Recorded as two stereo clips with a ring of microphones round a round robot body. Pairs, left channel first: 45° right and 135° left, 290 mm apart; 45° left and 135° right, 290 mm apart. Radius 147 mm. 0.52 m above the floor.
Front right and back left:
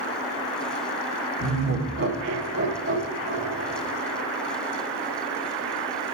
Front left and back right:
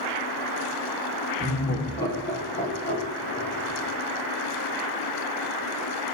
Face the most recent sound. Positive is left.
turn(degrees=85)